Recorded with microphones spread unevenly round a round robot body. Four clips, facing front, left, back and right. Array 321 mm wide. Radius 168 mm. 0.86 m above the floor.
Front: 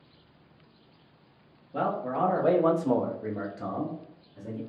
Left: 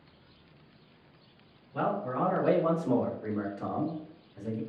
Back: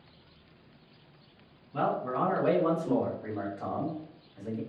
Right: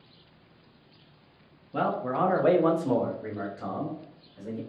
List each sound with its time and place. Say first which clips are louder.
1.7 s a man speaking: right 3 dB, front 1 dB; 80° right, 1.2 m; by 4.6 s 35° left, 1.6 m